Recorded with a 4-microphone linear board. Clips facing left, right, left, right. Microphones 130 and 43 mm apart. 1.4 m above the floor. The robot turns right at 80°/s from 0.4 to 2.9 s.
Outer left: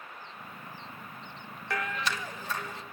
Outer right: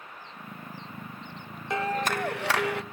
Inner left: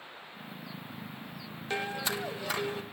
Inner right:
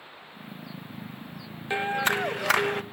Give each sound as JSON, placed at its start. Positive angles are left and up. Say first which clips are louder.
{"t": 1.7, "sound": "a clap", "louder": "outer right 6 dB, inner right 8 dB", "azimuth_deg": -160, "distance_m": 0.6}